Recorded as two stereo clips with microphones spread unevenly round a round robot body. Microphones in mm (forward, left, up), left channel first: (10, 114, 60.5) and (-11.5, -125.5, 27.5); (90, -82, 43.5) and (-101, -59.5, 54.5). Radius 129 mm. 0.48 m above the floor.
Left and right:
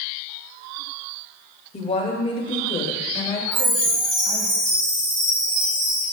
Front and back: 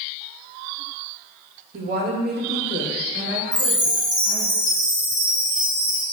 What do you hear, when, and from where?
1.7 s a woman speaking: 145° left, 1.9 m; by 4.5 s 170° left, 4 m
3.5 s a chime: 120° right, 3.5 m